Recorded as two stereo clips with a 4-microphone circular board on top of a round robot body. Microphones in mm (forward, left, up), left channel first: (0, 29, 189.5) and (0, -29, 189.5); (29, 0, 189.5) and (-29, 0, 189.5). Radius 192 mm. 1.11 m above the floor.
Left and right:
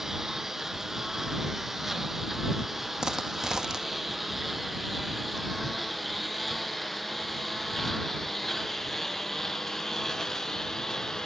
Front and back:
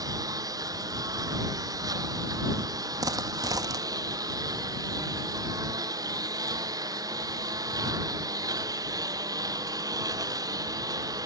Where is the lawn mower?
175° right; by 11.2 s 175° left.